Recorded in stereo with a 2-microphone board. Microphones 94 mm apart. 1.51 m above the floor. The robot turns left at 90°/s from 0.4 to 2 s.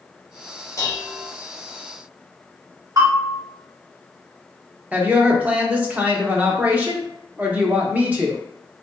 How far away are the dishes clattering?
About 0.8 m.